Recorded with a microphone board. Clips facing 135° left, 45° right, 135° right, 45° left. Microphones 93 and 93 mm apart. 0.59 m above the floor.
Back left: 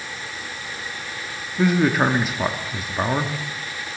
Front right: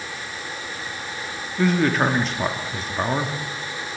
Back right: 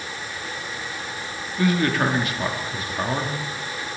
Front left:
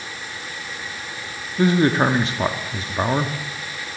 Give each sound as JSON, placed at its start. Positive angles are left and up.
{"t": 1.6, "sound": "a man speaking", "azimuth_deg": 60, "distance_m": 1.0}